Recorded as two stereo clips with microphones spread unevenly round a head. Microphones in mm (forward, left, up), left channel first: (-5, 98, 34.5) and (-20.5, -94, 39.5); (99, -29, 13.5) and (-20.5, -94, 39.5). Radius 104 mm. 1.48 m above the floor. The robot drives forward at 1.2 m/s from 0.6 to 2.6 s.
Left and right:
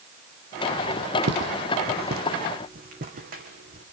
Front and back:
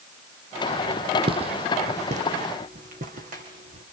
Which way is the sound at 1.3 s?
115° right.